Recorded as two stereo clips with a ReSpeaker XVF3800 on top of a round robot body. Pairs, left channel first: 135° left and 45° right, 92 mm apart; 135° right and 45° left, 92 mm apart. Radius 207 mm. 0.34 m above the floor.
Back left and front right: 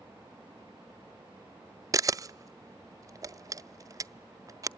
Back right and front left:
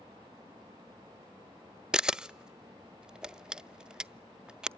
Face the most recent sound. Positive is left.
turn(degrees=-30)